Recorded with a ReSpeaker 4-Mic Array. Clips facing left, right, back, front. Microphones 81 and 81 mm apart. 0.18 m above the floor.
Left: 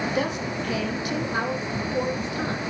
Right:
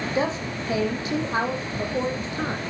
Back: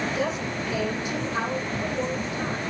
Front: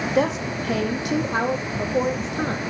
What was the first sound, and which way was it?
A woman speaking, 25° right.